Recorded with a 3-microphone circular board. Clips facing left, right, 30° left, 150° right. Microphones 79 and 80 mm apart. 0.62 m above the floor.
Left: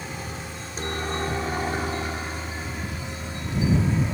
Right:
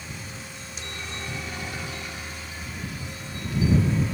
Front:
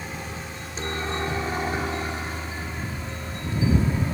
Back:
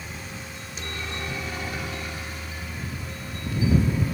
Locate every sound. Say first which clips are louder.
0.0 s a helicopter: left 5 dB, front 4 dB; 75° left; by 4.1 s 50° left